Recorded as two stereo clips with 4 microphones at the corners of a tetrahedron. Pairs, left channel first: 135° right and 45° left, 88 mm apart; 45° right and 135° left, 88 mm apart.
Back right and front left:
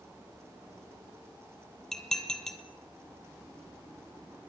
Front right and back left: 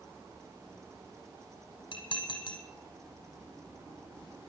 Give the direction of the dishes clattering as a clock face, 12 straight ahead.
2 o'clock.